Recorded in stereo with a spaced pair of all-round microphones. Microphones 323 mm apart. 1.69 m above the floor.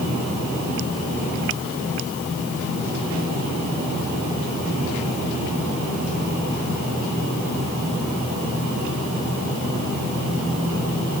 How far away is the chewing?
I don't hear chewing.